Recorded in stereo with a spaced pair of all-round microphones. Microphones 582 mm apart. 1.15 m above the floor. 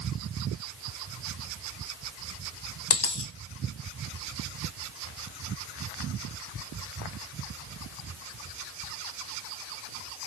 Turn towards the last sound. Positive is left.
turn(degrees=40)  # may be behind; listen again after turning